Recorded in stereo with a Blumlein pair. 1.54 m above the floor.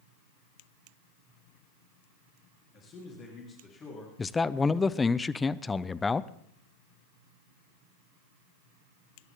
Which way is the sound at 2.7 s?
30° left.